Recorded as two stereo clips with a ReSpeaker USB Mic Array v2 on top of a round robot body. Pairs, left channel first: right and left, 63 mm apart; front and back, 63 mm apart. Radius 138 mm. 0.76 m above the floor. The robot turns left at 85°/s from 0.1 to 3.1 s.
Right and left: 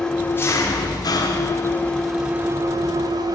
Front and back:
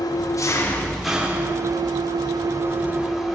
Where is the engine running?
10° right, 1.6 m; by 3.4 s 95° left, 1.6 m.